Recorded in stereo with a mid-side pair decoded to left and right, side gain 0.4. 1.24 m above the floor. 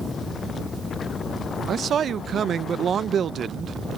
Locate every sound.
1.7 s a man speaking: 55° right